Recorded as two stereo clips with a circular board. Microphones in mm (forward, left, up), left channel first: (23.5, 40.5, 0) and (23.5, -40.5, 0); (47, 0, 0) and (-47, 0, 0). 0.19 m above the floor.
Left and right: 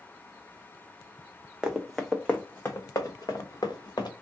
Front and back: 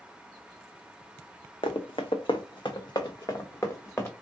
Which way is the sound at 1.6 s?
10° right.